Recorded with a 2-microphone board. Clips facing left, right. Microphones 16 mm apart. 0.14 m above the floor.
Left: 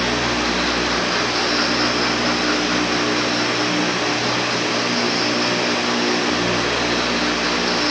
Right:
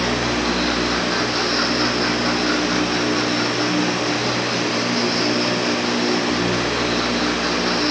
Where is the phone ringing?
I don't hear a phone ringing.